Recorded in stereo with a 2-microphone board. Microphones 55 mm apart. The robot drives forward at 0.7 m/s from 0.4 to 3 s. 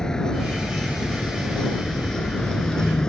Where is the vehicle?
10° left (ahead or behind); by 3.1 s 15° left (ahead or behind).